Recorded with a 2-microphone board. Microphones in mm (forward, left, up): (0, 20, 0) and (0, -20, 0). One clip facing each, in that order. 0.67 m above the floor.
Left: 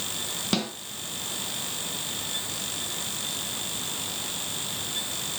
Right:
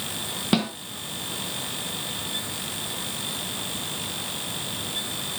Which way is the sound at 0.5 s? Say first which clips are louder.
Right 5 dB; 20° right (ahead or behind).